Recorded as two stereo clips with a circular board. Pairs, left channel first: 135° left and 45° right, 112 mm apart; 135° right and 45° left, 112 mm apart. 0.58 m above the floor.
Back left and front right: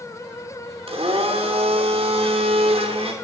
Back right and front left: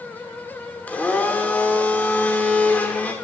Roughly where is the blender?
Ahead right.